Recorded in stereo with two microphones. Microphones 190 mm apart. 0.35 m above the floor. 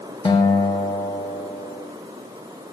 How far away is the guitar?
About 0.8 m.